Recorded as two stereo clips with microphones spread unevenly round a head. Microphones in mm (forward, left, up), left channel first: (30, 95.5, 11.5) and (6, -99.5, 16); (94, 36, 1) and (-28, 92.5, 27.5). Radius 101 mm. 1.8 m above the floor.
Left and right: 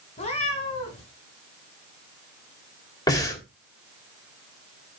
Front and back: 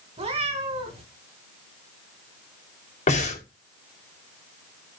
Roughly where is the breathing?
Ahead.